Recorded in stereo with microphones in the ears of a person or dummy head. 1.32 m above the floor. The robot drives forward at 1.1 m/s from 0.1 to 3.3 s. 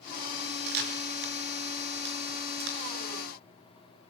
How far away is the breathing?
No breathing in this recording.